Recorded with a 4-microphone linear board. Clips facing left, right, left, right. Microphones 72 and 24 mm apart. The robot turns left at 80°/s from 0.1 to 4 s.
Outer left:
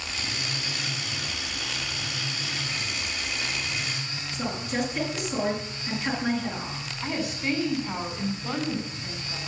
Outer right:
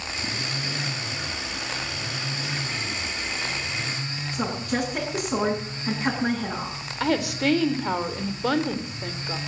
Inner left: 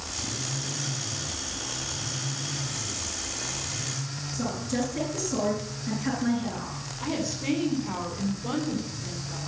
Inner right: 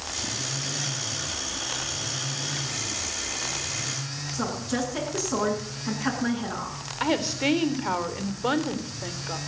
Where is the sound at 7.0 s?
75° right (ahead or behind), 3.5 m.